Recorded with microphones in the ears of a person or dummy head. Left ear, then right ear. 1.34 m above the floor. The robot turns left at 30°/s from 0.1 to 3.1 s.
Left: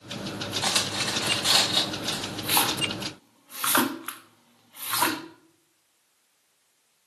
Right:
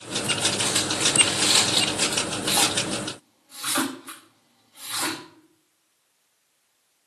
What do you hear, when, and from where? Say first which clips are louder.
0.6 s cutlery clinking: right 2 dB; 25° left (ahead or behind), 0.7 m; by 2.2 s 10° right (ahead or behind), 0.7 m
2.4 s a splash: even; 25° left (ahead or behind), 0.6 m; by 5.2 s 45° left (ahead or behind), 0.6 m